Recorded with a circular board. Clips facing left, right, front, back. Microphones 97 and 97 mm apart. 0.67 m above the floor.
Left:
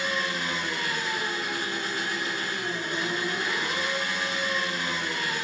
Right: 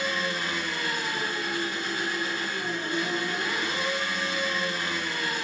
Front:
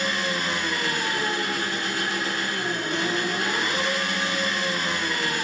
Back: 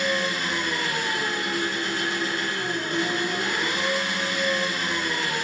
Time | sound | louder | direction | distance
0.0 | an engine running | even, back 1 dB | 20° left | 1.6 m